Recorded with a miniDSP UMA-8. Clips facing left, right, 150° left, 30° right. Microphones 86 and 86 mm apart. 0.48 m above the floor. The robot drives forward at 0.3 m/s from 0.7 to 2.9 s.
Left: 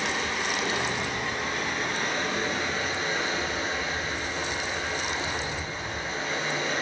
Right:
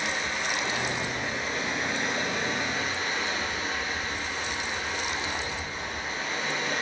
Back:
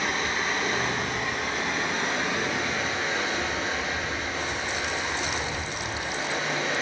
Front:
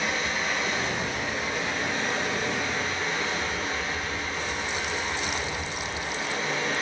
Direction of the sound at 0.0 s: 110° left.